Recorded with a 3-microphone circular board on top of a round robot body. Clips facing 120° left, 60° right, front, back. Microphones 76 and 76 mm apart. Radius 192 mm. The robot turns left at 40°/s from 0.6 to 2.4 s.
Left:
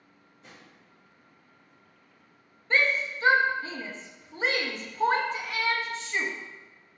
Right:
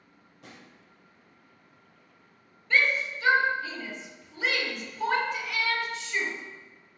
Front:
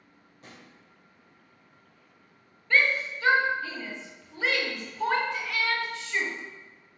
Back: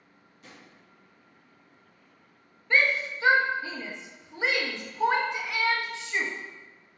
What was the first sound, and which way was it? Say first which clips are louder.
A drawer: right 2 dB, front 1 dB; 50° right.